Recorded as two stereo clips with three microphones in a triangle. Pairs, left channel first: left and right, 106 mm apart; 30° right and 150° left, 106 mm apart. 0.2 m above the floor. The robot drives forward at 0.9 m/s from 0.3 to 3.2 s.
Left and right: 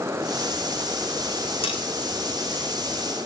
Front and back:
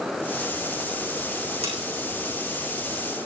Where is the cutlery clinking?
125° left, 8.5 m.